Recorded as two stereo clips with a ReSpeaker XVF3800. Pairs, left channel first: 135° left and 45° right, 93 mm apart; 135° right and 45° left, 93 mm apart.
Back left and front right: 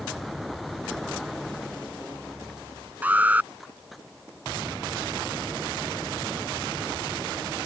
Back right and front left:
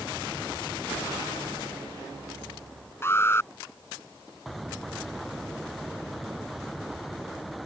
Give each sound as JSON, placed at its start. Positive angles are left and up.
{"t": 3.0, "sound": "an alarm", "azimuth_deg": -100}